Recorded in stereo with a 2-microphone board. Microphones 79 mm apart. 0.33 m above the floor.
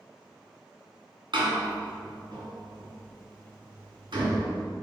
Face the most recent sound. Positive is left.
turn(degrees=-75)  # may be behind; listen again after turning